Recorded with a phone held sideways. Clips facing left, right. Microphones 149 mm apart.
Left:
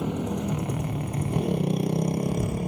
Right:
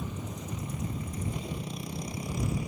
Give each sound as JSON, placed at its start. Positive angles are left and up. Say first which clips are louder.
{"t": 0.0, "sound": "a motorcycle", "louder": "left 11 dB", "side_deg": 75}